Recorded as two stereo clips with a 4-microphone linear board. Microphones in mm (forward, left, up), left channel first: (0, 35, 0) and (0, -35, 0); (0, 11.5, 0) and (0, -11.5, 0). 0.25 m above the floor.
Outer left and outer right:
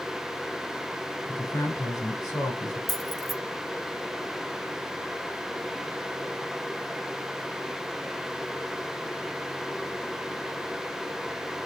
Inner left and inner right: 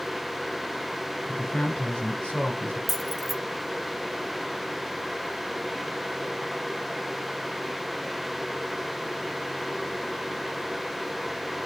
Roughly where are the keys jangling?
Centre.